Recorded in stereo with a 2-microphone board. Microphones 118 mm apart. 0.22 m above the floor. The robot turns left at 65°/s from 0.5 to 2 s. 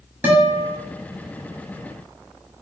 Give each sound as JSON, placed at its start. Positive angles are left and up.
{"t": 0.2, "sound": "a guitar", "side_deg": -15, "distance_m": 1.2}